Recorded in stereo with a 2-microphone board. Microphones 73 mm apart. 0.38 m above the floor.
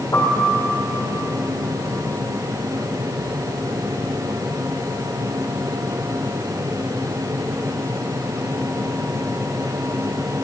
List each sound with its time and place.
0.1 s a piano: 55° left (ahead or behind), 4.5 m